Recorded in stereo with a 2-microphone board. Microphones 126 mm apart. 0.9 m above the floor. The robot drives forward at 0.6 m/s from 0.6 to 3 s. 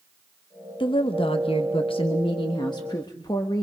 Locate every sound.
0.8 s a woman speaking: 40° left (ahead or behind), 1.0 m; by 3.6 s 30° left (ahead or behind), 1.3 m